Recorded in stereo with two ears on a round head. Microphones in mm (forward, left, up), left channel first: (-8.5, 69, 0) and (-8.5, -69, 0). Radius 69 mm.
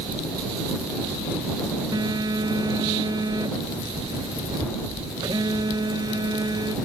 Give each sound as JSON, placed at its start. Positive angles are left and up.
{"t": 1.9, "sound": "a phone buzzing", "side_deg": -25}